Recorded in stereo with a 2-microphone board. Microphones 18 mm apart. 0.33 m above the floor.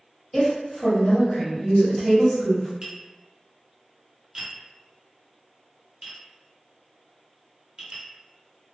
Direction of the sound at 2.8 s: 40° right (ahead or behind).